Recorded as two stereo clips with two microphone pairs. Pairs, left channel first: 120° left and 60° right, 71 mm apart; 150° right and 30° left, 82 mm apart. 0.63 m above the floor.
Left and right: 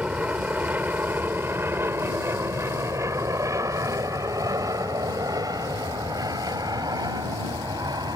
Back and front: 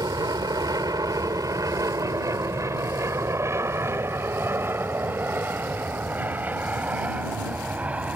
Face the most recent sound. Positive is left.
turn(degrees=-45)